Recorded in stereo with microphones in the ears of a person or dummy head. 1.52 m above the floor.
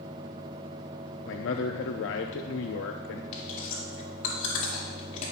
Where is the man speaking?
65° left (ahead or behind), 0.6 m.